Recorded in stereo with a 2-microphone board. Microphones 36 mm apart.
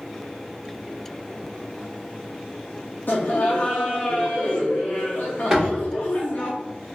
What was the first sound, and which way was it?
Laughter, 55° left (ahead or behind).